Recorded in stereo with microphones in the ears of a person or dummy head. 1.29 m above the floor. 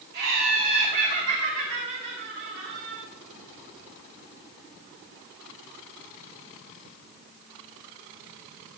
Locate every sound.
0.1 s laughter: 50° right (ahead or behind), 3 m